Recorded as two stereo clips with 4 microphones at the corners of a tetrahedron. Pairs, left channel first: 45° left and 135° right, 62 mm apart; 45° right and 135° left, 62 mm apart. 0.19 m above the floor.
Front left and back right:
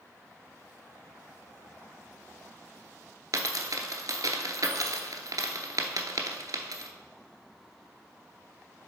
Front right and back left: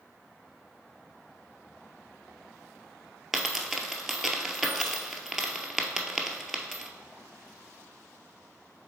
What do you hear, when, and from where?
3.3 s a dropped coin: 140° right, 0.8 m